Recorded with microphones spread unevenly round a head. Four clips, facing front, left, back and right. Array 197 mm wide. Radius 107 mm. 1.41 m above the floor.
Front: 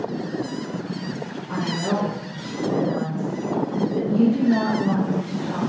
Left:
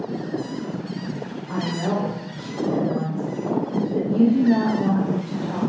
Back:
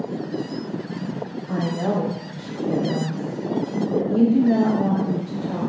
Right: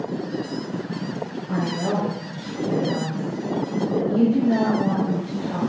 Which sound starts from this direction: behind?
A woman speaking, at 1.5 s.